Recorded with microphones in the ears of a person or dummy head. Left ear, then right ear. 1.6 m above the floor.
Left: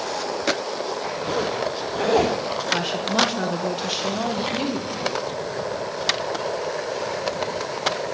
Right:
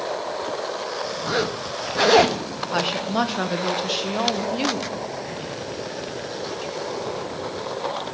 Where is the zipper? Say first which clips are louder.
Left 1 dB; 55° right (ahead or behind), 1.6 m.